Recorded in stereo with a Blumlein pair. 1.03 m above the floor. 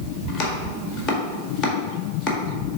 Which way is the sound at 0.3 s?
25° left.